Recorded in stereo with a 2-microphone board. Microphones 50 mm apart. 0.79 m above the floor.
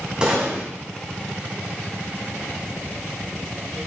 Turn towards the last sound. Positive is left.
turn(degrees=-20)  # may be behind; listen again after turning